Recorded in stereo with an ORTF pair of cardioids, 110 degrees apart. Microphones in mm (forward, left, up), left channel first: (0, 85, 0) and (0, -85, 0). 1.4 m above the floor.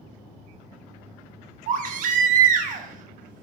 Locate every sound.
1.7 s a baby crying: 50° right, 0.6 m